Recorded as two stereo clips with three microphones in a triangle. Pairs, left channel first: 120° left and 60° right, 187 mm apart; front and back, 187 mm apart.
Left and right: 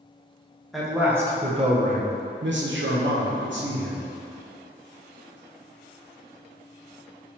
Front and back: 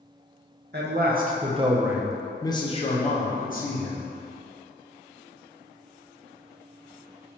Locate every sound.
0.7 s a man speaking: 150° right, 0.8 m; by 4.1 s 40° right, 1.3 m